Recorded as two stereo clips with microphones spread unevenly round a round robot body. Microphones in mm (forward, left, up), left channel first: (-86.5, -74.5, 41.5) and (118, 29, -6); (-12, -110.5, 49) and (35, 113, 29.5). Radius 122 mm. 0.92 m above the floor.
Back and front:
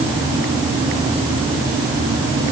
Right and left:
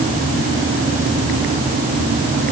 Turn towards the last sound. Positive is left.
No sound to turn to.